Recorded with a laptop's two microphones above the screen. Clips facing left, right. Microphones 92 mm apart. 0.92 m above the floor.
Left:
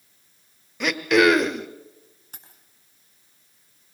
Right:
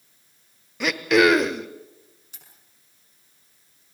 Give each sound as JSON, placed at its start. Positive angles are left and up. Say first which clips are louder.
{"t": 0.8, "sound": "throat clearing", "louder": "even", "side_deg": 0, "distance_m": 1.0}
{"t": 2.3, "sound": "keys jangling", "louder": "left 3 dB", "side_deg": 50, "distance_m": 6.0}